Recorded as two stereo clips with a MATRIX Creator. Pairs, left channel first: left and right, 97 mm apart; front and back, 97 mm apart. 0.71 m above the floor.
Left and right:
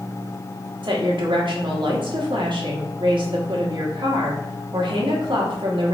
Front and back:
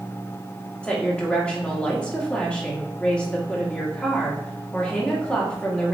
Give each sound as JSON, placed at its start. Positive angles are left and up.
{"t": 0.8, "sound": "a woman speaking", "azimuth_deg": -80, "distance_m": 1.4}